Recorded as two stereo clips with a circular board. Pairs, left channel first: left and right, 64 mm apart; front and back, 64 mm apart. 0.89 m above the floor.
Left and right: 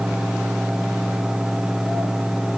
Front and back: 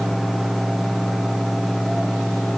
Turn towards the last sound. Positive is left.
No sound to turn to.